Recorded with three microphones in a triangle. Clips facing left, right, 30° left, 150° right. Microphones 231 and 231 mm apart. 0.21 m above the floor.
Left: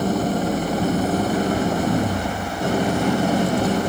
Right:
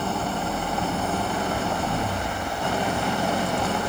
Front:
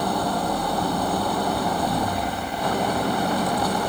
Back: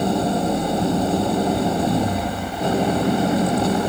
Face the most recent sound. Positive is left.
turn(degrees=145)